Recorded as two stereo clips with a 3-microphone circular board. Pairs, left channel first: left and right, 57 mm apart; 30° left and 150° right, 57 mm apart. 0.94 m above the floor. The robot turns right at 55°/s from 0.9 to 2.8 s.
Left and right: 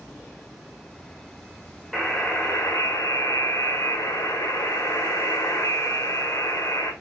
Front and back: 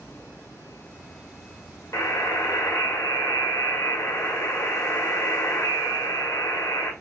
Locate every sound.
1.9 s a buzzer: 5° left, 1.4 m; by 6.9 s 50° left, 1.4 m